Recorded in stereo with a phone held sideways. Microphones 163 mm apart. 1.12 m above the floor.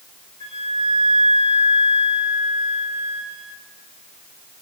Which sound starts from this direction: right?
A flute, at 0.4 s.